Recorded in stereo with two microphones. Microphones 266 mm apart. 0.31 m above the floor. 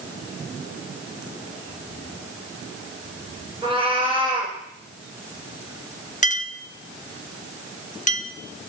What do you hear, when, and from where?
3.6 s a cat meowing: 20° right (ahead or behind), 2.5 m
6.2 s a clink: 30° left (ahead or behind), 0.6 m